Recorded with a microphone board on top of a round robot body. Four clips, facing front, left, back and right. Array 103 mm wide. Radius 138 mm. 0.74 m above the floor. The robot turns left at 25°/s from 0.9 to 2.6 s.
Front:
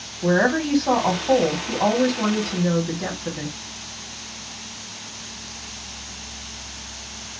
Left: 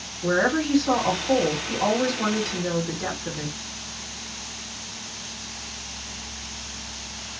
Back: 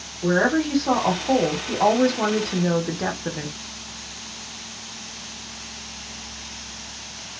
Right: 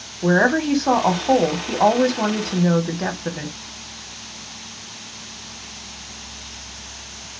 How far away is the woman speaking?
About 1.5 m.